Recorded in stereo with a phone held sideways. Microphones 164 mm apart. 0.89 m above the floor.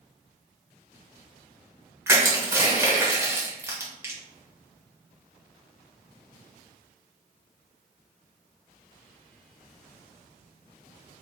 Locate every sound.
2.1 s crushing: 15° right (ahead or behind), 1.3 m